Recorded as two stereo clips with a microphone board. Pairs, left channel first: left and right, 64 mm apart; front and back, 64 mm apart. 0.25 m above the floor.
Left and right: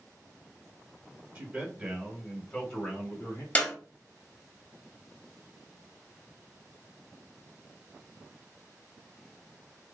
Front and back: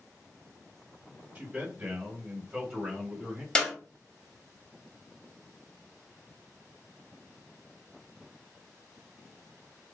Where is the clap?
60° left, 0.7 m.